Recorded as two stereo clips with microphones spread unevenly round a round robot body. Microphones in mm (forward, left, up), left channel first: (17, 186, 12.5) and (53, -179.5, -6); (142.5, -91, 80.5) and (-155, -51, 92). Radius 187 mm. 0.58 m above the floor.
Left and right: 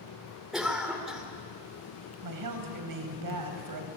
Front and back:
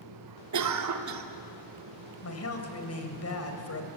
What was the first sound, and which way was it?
A cough, 170° right.